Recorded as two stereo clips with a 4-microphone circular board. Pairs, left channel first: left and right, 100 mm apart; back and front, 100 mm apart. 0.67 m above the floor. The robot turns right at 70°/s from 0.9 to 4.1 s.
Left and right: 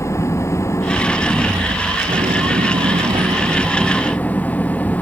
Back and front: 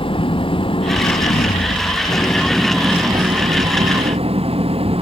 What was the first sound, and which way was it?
An engine running, 150° left.